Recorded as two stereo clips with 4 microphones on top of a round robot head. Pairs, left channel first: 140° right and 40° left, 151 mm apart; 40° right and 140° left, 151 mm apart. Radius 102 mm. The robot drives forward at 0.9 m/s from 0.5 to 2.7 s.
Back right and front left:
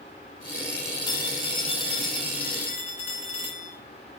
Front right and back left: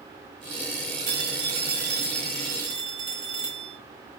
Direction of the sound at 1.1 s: 150° left.